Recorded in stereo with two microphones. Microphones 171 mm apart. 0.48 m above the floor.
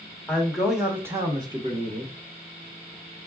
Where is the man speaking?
5° left (ahead or behind), 1.5 m; by 2.1 s 40° right (ahead or behind), 1.2 m.